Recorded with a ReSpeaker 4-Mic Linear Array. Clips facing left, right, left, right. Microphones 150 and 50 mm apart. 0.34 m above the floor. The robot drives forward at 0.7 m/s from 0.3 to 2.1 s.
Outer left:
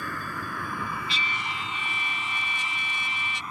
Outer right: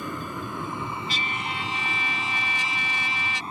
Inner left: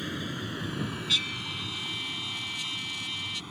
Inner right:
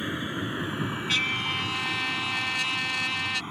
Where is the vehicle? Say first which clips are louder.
Outer right 3 dB, inner right 4 dB; 20° right (ahead or behind); by 3.5 s 30° right (ahead or behind).